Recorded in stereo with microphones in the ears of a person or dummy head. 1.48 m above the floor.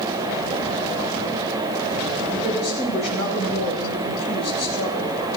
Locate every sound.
2.3 s a woman speaking: 65° right (ahead or behind), 8 m